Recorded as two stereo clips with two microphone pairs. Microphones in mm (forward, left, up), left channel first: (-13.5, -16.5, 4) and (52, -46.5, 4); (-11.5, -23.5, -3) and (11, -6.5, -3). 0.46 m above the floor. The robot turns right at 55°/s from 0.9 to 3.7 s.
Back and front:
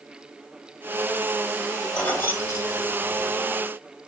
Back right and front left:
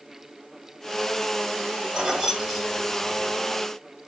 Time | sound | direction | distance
1.9 | keys jangling | 80° left | 0.9 m